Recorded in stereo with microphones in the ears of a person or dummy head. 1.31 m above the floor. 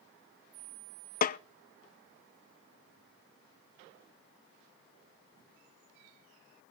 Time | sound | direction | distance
1.2 | a snare drum | 40° left (ahead or behind) | 0.6 m